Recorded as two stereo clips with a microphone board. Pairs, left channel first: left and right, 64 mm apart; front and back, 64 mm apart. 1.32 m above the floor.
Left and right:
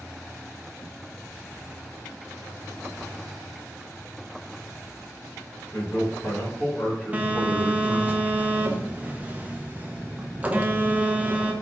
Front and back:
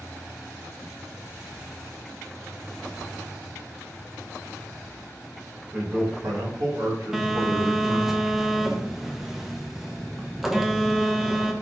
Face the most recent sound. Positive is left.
turn(degrees=-100)